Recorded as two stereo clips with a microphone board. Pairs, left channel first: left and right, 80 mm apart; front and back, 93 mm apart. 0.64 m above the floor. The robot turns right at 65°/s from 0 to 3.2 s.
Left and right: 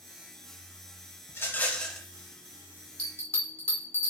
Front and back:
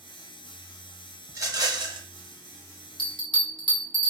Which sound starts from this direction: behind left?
A rattle, at 1.3 s.